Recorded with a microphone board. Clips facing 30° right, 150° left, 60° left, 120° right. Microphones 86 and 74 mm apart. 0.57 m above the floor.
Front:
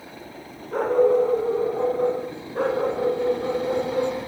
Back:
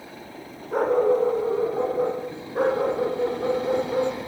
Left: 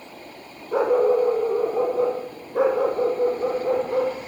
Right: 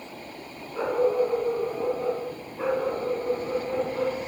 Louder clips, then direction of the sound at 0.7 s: Front 2 dB, left 5 dB; 70° left.